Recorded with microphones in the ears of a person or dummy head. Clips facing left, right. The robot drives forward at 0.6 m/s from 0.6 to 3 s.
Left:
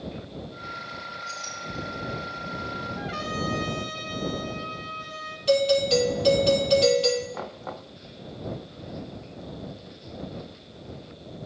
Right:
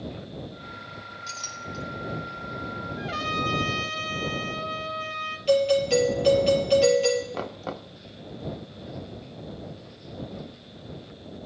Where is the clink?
75° right (ahead or behind), 2.5 m.